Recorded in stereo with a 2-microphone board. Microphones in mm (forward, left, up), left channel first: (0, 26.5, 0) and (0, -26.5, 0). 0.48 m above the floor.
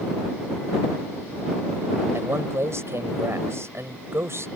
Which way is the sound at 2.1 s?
60° right (ahead or behind).